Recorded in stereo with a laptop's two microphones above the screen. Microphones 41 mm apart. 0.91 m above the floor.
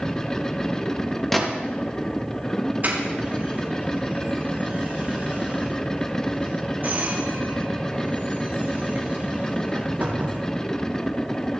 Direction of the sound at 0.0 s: 15° left (ahead or behind).